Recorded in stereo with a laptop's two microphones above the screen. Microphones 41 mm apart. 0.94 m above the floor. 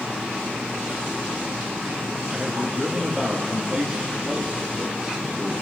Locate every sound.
2.3 s a man speaking: 15° right (ahead or behind), 1.2 m